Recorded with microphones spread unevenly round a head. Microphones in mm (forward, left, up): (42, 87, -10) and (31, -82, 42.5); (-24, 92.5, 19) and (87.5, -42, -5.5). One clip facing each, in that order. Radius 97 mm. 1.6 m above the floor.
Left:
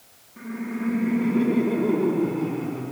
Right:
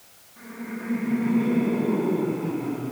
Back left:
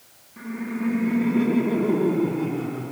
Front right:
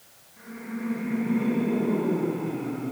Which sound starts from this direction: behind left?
Laughter, at 0.4 s.